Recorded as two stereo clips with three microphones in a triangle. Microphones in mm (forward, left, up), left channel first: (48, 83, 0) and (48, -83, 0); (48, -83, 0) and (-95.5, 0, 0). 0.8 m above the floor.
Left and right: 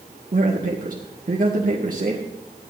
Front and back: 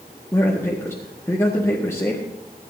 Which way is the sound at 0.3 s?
100° right.